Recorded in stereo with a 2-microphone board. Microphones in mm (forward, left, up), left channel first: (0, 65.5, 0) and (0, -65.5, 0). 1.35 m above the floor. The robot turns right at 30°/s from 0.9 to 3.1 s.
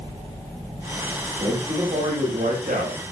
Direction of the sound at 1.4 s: 145° right.